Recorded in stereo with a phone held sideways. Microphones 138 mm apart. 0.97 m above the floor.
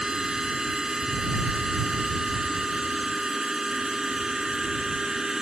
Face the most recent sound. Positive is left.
turn(degrees=-5)  # may be behind; listen again after turning